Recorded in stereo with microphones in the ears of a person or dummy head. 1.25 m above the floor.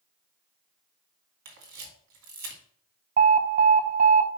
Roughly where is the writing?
No writing in this recording.